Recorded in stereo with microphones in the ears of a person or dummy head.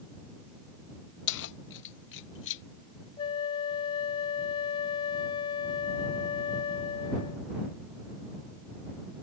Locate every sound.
1.3 s keys jangling: 70° left (ahead or behind)
3.2 s a flute: 25° left (ahead or behind)